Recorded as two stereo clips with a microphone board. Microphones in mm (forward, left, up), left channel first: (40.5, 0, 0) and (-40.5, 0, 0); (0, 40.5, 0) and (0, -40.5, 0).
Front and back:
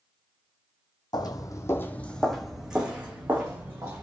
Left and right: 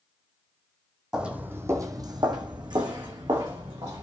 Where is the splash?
No splash in this recording.